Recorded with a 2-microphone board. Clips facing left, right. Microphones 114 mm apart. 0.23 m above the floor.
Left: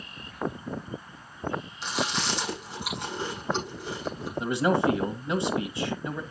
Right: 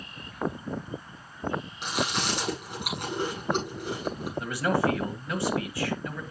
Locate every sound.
1.8 s chewing: 60° right (ahead or behind), 7 m
4.4 s a man speaking: 20° left (ahead or behind), 1.1 m